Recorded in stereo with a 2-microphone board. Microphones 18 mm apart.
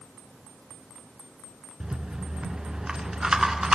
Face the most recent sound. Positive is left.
turn(degrees=-55)  # may be behind; listen again after turning